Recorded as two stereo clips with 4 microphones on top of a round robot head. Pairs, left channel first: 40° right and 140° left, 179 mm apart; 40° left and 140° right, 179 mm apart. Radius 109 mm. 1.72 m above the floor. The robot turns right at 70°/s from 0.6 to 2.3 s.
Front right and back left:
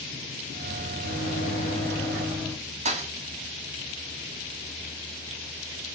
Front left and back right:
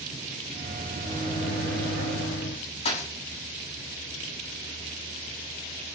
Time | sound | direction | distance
1.0 | a microwave | 25° right | 3 m
2.9 | a thud | 90° left | 1.6 m